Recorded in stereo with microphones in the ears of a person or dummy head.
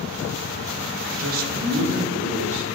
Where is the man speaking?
40° right (ahead or behind), 1.0 m; by 2.6 s 70° right (ahead or behind), 3 m.